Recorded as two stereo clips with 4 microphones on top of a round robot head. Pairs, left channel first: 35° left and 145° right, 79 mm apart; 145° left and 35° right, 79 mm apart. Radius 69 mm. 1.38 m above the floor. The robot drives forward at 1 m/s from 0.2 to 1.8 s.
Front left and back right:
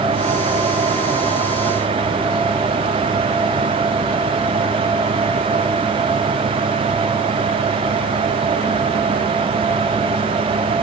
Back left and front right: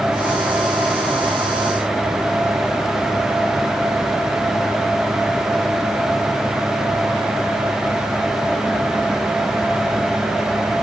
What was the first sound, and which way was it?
Only background noise.